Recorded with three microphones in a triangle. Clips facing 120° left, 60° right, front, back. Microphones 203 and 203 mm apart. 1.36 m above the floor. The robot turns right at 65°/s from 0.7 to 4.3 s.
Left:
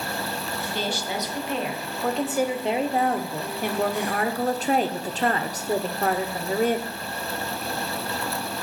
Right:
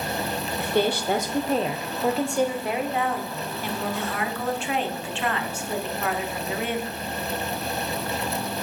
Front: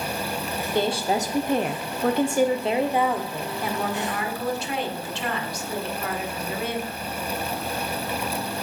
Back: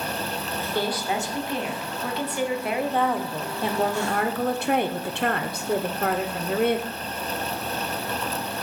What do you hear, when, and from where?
0.6 s a woman speaking: 70° right, 0.7 m; by 7.0 s 165° left, 0.7 m